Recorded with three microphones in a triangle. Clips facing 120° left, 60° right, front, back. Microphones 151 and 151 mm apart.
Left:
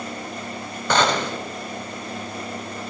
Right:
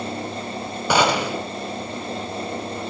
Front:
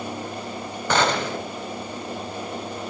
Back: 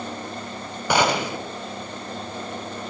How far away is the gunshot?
About 0.9 m.